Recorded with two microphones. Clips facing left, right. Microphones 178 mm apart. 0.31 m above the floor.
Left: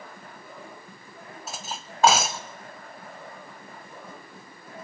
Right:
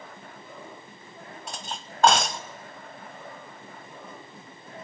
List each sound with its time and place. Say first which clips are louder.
1.5 s cutlery clinking: left 1 dB; 5° left (ahead or behind), 0.8 m